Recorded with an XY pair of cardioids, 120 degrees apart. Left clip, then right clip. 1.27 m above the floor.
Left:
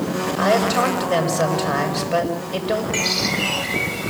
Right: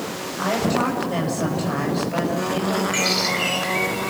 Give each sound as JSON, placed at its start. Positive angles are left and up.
{"t": 0.4, "sound": "a woman speaking", "azimuth_deg": 45, "distance_m": 6.5}
{"t": 2.9, "sound": "a bird", "azimuth_deg": 0, "distance_m": 3.5}